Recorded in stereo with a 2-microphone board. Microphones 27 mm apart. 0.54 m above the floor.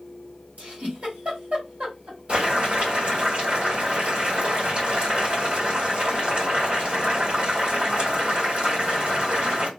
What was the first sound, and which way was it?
A giggle, 65° right (ahead or behind).